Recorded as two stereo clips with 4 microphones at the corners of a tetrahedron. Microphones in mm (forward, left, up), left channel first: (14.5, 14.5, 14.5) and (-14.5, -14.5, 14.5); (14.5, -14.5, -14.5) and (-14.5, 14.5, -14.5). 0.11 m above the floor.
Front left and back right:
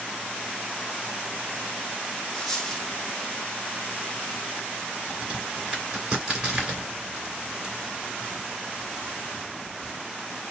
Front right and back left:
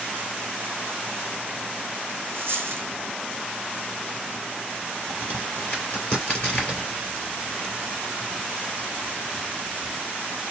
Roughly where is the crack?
Right.